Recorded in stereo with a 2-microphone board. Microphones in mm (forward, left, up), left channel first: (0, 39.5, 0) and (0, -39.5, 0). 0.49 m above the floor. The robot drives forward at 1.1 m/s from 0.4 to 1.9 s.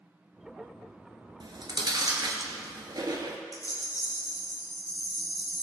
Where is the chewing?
75° right (ahead or behind), 1.1 m; by 3.4 s 60° right (ahead or behind), 1.2 m.